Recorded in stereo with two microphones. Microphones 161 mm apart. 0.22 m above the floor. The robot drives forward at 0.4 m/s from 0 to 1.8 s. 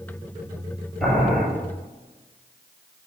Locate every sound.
1.0 s boiling: 65° right (ahead or behind), 3 m; by 1.4 s 70° right (ahead or behind), 3 m